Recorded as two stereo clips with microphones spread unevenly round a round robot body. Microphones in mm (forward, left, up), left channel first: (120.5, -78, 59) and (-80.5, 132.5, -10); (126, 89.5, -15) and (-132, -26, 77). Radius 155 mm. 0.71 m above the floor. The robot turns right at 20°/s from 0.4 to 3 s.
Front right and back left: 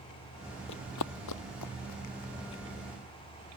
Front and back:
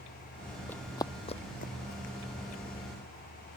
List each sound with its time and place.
0.7 s running footsteps: 75° right; by 2.6 s 25° right